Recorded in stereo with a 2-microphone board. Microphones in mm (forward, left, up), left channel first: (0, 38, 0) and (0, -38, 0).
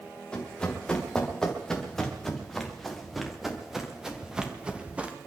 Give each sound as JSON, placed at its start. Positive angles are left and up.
{"t": 0.3, "sound": "running footsteps", "side_deg": 10, "distance_m": 4.5}